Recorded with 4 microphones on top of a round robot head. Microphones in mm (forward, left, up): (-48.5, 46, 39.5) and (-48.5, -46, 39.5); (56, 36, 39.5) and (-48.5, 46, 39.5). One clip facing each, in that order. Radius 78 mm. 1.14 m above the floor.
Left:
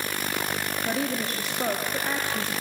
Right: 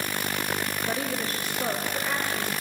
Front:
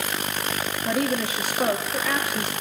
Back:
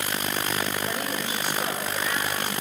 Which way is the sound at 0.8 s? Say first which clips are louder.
Left 4 dB, front 6 dB; 25° left.